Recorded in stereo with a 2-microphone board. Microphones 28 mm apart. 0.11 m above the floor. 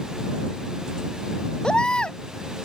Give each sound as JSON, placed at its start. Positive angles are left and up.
{"t": 1.6, "sound": "a baby crying", "side_deg": 35}